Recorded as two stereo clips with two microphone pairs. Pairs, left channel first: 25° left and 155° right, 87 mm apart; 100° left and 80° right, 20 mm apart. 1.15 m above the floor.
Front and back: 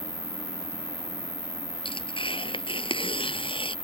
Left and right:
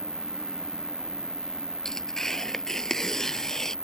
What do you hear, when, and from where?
0.0 s an insect: 40° left
1.9 s tearing paper: 25° left